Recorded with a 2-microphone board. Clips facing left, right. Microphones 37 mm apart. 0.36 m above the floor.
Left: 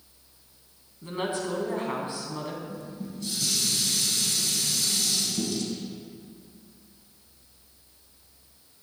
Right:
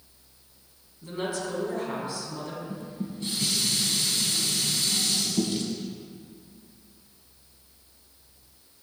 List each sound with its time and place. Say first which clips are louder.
1.0 s a woman speaking: left 1 dB; 35° left (ahead or behind), 3 m
2.7 s dishes clattering: right 2 dB; 40° right (ahead or behind), 1.9 m